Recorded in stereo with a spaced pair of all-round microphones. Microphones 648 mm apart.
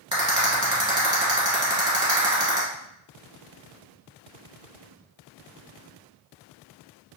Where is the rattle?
10° right (ahead or behind), 1.5 m.